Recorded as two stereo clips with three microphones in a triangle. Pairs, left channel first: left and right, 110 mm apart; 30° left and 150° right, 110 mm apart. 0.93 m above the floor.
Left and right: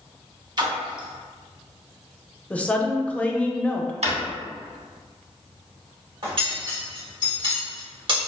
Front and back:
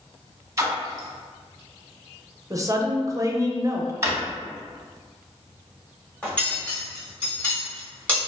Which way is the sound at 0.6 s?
105° right.